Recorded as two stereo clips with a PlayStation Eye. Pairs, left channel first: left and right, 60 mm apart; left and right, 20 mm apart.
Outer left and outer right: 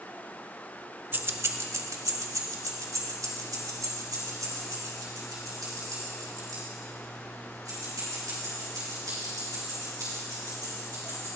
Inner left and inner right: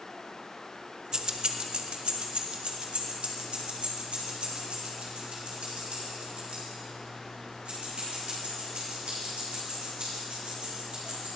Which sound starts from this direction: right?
Keys jangling, at 1.1 s.